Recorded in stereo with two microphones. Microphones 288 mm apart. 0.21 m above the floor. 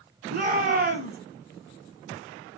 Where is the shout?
30° right (ahead or behind), 1.3 m.